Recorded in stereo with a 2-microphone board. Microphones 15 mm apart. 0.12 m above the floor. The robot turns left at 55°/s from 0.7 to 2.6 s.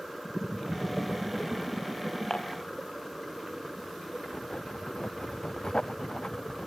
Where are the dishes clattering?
55° left (ahead or behind); by 2.6 s 75° left (ahead or behind).